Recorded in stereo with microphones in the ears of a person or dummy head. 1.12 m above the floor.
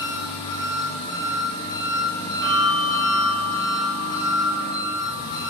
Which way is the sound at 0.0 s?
25° left (ahead or behind).